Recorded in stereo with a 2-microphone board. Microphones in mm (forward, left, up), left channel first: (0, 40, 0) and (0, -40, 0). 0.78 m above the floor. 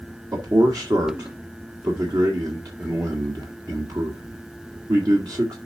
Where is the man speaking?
55° right (ahead or behind), 1.5 m.